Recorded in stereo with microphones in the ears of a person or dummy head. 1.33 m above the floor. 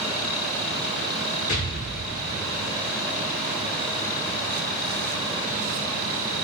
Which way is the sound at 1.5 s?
45° left (ahead or behind).